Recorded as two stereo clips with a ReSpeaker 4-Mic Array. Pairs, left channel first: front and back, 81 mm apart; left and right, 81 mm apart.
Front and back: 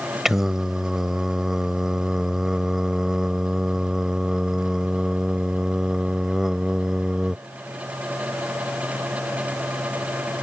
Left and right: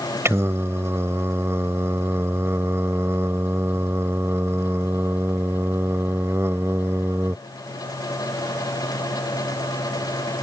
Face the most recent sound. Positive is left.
turn(degrees=-100)